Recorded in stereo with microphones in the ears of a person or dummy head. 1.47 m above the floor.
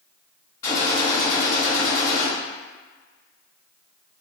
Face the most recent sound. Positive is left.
turn(degrees=20)  # may be behind; listen again after turning